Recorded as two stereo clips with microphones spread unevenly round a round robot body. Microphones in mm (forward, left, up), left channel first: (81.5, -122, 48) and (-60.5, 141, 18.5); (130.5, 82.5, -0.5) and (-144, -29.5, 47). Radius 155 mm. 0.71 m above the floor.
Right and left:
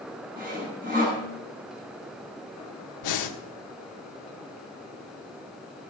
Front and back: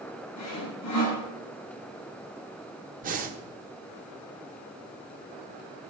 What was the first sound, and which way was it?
Sawing, 55° left.